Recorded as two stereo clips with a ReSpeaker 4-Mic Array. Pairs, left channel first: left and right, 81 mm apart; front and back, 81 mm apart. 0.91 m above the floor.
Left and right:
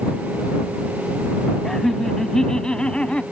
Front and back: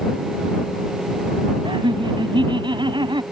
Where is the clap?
I don't hear a clap.